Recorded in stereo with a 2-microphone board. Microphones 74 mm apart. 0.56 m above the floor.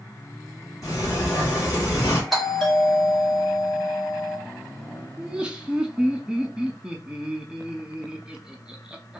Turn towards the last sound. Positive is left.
turn(degrees=-10)  # may be behind; listen again after turning